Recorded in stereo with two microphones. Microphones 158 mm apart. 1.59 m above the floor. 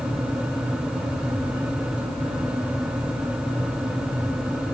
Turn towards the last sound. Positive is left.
No sound to turn to.